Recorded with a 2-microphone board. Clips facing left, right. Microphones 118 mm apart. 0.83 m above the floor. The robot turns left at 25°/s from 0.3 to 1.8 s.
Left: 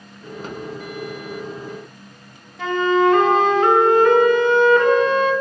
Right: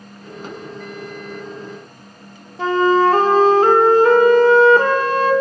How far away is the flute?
About 0.5 m.